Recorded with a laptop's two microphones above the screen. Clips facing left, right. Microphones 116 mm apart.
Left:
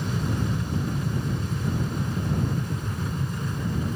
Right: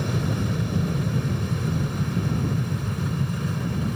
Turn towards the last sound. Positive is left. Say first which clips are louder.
# right 2 dB
turn(degrees=-70)  # may be behind; listen again after turning